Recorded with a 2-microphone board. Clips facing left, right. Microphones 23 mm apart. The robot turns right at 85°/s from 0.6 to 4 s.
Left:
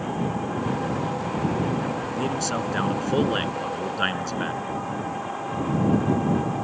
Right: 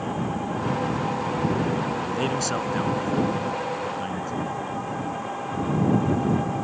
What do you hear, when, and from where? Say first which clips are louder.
2.0 s a man speaking: right 1 dB; 45° right; by 4.6 s 125° left